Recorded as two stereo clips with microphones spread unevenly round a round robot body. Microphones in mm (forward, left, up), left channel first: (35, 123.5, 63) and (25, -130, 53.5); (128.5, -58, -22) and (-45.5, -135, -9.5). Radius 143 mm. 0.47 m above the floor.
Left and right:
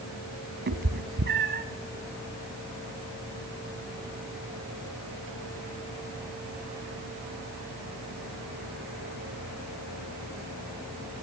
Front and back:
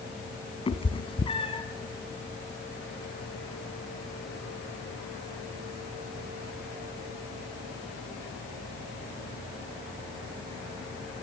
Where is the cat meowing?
40° right, 2.5 m.